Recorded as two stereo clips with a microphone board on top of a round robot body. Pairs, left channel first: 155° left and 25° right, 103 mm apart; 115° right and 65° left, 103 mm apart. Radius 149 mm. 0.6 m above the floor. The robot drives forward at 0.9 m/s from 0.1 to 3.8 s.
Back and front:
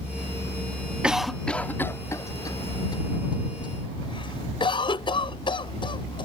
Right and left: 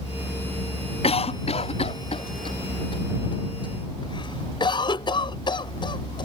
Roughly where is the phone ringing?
No phone ringing in this recording.